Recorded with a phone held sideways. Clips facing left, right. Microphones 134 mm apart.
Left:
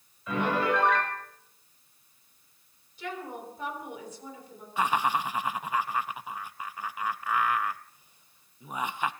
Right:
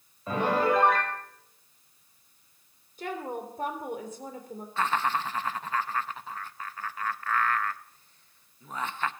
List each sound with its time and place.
0.3 s a piano: 40° right (ahead or behind), 3.5 m
3.0 s a woman speaking: 50° right (ahead or behind), 3 m
4.8 s laughter: 15° left (ahead or behind), 0.6 m